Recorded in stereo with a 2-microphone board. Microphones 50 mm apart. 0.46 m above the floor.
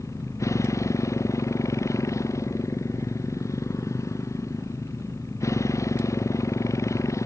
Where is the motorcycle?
90° left.